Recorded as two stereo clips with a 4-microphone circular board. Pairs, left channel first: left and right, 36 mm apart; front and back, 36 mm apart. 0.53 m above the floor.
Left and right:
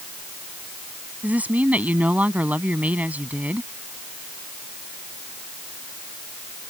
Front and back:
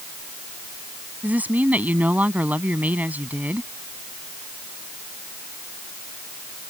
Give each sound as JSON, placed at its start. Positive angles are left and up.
{"t": 1.2, "sound": "a woman speaking", "azimuth_deg": -135}